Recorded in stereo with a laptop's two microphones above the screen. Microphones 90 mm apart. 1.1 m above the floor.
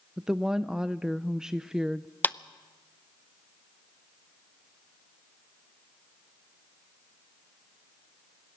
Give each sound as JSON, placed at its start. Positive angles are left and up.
{"t": 0.2, "sound": "a woman speaking", "side_deg": -5, "distance_m": 0.5}
{"t": 2.2, "sound": "a clap", "side_deg": 20, "distance_m": 0.6}